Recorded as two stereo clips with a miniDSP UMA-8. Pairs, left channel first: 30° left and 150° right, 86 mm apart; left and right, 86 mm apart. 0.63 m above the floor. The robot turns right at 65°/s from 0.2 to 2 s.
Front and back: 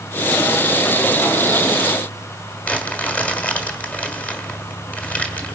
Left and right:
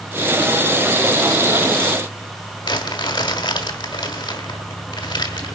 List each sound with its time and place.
2.6 s crumpling: 100° left, 2.0 m